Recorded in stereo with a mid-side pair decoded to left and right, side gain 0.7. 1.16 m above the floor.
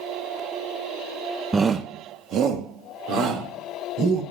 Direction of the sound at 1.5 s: 15° right.